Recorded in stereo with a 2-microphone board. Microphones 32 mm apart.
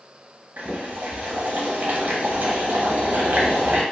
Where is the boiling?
60° right (ahead or behind), 0.9 m.